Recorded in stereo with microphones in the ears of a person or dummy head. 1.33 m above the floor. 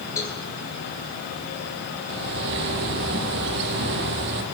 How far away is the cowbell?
About 5 m.